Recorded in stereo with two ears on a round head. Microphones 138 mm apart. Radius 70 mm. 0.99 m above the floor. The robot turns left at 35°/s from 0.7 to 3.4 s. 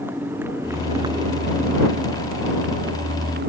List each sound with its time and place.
0.0 s a motorcycle: 15° right; by 3.5 s 110° right